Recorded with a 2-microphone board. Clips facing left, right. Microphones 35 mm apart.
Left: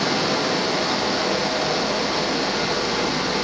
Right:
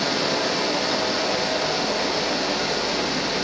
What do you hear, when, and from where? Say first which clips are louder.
0.0 s running water: left 1 dB; 55° left (ahead or behind), 1.6 m